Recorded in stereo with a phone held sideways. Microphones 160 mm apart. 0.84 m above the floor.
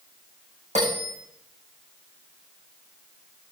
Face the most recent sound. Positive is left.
turn(degrees=-45)  # may be behind; listen again after turning